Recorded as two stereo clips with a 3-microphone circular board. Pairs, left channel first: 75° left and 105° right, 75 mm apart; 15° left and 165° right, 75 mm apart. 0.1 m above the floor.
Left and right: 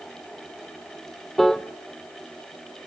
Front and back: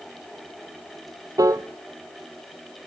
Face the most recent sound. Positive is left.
turn(degrees=160)